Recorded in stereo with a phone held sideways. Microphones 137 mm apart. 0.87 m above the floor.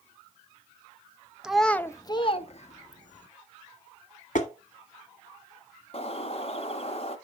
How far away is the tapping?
About 1.4 m.